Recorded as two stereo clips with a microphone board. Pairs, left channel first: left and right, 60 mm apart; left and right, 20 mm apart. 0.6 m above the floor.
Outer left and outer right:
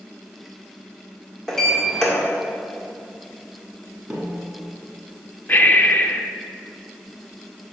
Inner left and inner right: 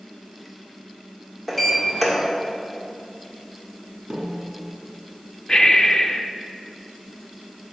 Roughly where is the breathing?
Left.